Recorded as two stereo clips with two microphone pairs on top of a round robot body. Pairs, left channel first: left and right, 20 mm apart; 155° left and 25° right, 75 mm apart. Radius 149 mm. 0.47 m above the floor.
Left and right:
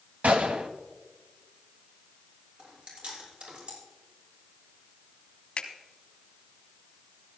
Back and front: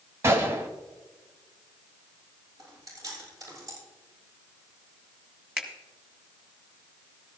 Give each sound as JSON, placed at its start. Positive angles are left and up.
{"t": 0.2, "sound": "a gunshot", "azimuth_deg": -80, "distance_m": 0.8}
{"t": 2.6, "sound": "chewing", "azimuth_deg": -65, "distance_m": 6.5}
{"t": 5.6, "sound": "a finger snap", "azimuth_deg": 60, "distance_m": 2.0}